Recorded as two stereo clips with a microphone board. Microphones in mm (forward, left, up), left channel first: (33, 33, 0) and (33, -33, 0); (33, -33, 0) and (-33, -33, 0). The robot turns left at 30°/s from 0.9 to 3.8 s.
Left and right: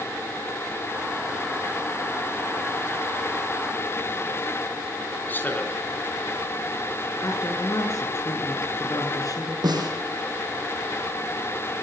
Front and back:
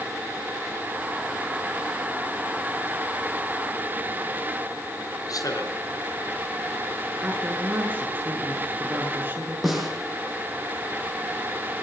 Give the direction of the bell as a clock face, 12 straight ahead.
I don't hear a bell.